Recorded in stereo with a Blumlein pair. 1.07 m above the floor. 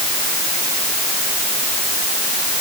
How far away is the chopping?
I don't hear chopping.